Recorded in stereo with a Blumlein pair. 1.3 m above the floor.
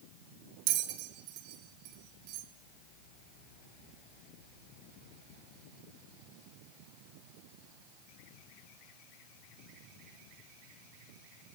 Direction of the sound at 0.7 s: 40° right.